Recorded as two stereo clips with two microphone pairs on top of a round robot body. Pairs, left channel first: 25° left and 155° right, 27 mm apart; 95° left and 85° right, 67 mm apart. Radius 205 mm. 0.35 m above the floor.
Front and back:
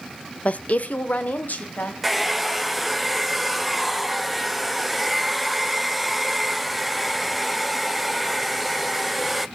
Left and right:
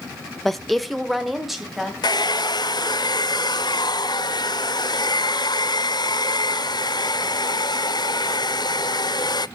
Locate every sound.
0.5 s a woman speaking: 15° left, 1.1 m; by 1.9 s straight ahead, 3 m
2.0 s a hair dryer: 115° left, 0.6 m